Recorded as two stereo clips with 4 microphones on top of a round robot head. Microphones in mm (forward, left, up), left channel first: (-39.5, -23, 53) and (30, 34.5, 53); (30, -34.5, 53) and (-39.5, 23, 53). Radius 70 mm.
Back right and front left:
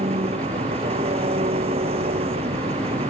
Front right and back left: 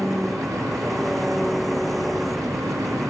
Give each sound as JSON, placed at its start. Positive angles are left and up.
{"t": 0.0, "sound": "an engine running", "azimuth_deg": 50}